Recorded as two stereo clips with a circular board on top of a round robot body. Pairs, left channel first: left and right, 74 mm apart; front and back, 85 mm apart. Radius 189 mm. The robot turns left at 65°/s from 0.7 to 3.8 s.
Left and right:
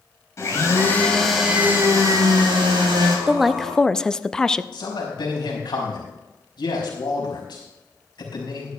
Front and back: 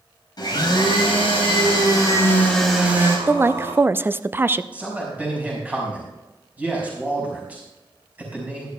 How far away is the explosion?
No explosion in this recording.